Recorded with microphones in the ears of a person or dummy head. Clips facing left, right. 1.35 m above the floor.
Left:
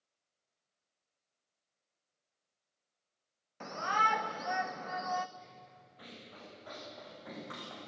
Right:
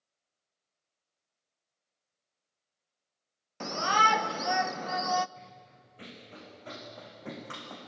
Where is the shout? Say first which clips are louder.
Right 6 dB; 55° right (ahead or behind), 0.6 m.